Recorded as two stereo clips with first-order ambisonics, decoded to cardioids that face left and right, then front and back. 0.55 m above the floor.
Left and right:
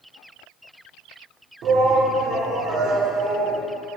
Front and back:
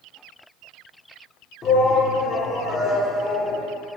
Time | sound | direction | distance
1.6 | a shout | 55° right | 1.1 m